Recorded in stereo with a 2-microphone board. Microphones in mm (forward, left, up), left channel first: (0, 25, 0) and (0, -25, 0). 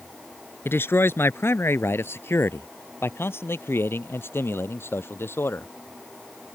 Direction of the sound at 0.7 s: 50° left (ahead or behind).